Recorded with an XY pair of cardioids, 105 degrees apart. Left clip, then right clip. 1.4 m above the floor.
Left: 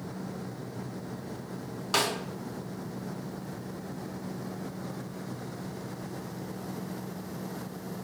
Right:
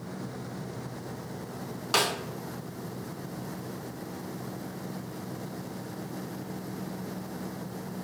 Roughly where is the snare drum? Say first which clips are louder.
Right 1 dB; ahead.